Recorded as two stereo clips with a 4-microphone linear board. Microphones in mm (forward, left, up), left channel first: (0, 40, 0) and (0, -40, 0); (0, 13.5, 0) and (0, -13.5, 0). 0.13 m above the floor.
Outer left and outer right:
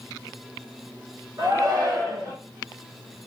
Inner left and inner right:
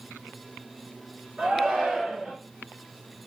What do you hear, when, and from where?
1.4 s a shout: 45° right (ahead or behind), 1.7 m